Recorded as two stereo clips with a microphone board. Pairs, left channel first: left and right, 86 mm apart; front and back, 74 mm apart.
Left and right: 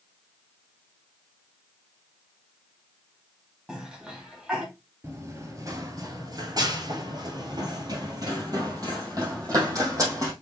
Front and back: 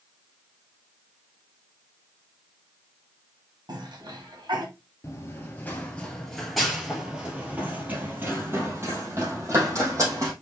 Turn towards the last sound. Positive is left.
turn(degrees=-135)